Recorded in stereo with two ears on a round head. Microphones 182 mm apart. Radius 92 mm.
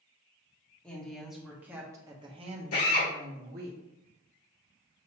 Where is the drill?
75° left (ahead or behind), 2 m.